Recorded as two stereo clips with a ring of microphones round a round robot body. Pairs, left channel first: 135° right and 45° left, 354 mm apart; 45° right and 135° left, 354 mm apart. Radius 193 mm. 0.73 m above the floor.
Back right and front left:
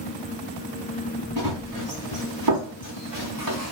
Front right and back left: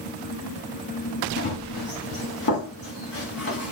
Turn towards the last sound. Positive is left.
turn(degrees=10)